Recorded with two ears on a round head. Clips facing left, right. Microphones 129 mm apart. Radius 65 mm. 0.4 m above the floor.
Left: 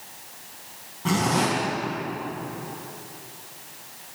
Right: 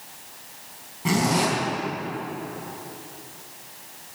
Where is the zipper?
10° right (ahead or behind), 3.5 m.